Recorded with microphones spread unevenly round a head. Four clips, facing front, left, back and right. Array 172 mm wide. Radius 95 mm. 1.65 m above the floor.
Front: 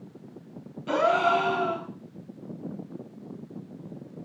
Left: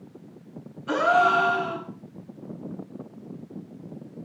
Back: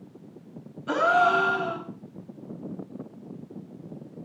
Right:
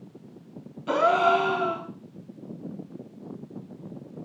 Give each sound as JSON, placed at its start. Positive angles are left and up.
{"t": 0.9, "sound": "a gasp", "azimuth_deg": -95, "distance_m": 9.5}